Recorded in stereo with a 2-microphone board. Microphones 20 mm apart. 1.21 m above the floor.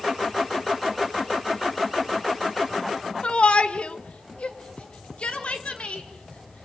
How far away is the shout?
About 1.6 m.